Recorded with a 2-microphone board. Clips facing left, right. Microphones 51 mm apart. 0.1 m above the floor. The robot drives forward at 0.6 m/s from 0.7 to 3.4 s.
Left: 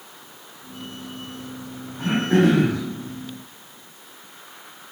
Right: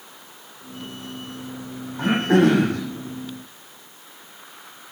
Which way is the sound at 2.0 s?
55° right (ahead or behind).